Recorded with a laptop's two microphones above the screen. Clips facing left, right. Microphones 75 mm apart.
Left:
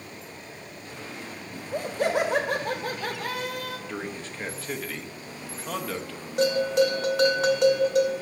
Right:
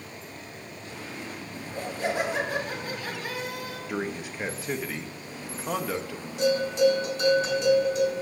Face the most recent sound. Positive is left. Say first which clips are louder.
# left 1 dB
turn(degrees=85)